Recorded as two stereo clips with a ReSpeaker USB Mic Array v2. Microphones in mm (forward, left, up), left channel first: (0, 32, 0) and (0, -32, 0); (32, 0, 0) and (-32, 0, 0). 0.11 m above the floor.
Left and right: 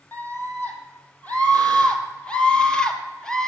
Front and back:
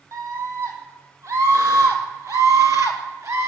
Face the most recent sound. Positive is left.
turn(degrees=170)